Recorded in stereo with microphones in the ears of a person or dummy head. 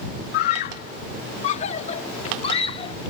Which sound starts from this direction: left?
A scream, at 0.3 s.